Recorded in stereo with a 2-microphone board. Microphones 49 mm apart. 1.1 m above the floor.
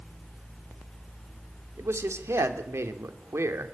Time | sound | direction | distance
1.8 | a man speaking | 75° right (ahead or behind) | 2.5 m